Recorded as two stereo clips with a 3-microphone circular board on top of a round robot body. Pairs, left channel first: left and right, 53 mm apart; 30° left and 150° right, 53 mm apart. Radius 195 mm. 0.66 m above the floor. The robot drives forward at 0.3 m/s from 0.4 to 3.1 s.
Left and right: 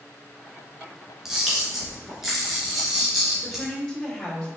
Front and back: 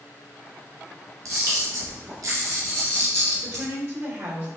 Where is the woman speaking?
170° left, 3.5 m.